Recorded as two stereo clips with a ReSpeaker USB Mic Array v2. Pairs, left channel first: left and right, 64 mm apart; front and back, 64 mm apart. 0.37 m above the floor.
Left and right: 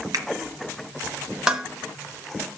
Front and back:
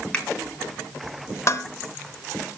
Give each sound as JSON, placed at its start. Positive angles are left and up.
{"t": 0.1, "sound": "a finger snap", "azimuth_deg": -75, "distance_m": 2.5}
{"t": 1.5, "sound": "dishes clattering", "azimuth_deg": -15, "distance_m": 0.8}